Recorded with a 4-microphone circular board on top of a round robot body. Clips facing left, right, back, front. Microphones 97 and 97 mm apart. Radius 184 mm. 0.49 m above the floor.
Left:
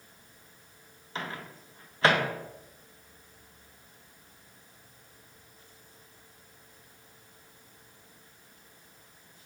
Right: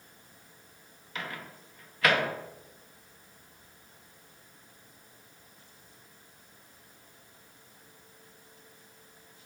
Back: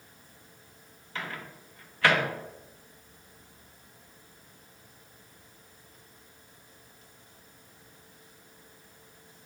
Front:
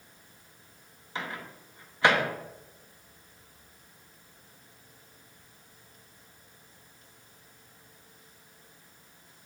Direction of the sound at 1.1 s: 55° left.